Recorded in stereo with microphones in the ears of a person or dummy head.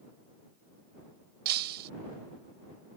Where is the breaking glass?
55° right (ahead or behind).